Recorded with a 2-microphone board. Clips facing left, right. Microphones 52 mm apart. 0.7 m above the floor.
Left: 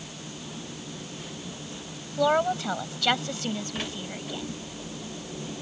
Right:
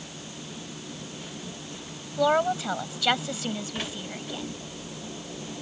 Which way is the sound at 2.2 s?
5° right (ahead or behind).